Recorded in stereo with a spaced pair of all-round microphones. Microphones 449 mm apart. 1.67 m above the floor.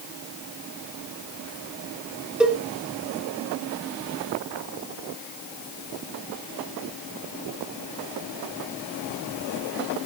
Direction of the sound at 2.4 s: Centre (ahead or behind).